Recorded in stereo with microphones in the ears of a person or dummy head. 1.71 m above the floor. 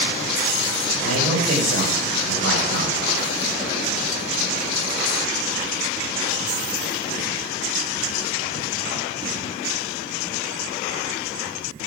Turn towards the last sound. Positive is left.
turn(degrees=-85)